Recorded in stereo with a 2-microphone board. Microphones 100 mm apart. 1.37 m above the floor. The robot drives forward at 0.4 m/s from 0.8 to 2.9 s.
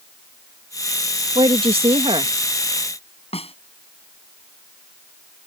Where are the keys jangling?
No keys jangling in this recording.